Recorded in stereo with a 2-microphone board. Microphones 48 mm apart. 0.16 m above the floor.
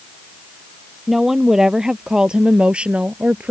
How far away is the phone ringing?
No phone ringing in this recording.